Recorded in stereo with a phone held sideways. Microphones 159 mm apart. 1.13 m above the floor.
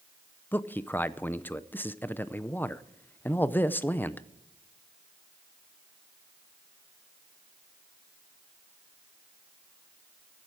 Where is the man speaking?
10° left (ahead or behind), 0.6 m.